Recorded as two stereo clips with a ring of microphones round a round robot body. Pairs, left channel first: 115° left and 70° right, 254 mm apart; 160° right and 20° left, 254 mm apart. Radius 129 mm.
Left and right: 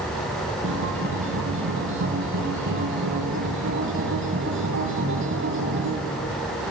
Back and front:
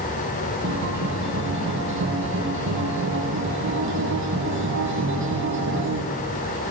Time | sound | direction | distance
0.6 | a guitar | 25° right | 3.5 m